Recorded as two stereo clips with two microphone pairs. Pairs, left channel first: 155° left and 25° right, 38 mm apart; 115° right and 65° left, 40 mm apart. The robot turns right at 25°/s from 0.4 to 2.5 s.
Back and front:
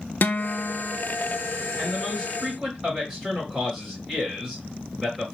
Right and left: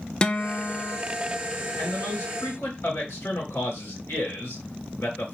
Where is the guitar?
Straight behind, 0.5 m; by 1.0 s 165° right, 0.5 m.